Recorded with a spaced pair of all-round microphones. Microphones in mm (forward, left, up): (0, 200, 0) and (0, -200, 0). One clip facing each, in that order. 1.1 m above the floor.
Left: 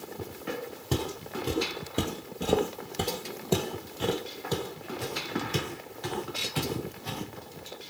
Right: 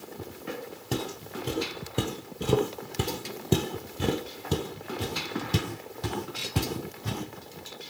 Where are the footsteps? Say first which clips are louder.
Left 1 dB; 15° left (ahead or behind), 1.8 m; by 7.2 s 70° right (ahead or behind), 2.5 m.